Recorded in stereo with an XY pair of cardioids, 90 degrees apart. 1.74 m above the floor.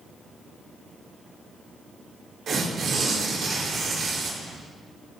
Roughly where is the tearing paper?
Ahead right.